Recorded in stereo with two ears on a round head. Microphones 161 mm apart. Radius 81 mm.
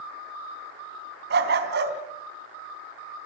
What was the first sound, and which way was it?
A dog barking, 65° right (ahead or behind).